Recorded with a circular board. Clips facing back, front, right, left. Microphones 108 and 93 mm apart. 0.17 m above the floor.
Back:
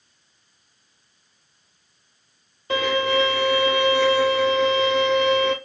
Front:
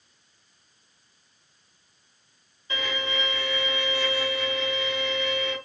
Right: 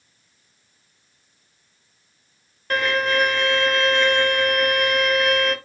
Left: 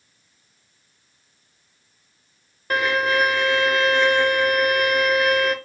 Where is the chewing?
No chewing in this recording.